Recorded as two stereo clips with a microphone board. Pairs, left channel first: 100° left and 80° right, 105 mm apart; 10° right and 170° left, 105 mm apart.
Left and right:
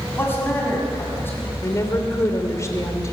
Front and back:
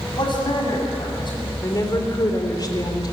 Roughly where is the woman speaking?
Ahead left.